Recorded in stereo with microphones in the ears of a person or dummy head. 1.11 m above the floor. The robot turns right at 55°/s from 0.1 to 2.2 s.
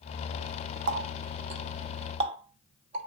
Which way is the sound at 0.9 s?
60° right (ahead or behind).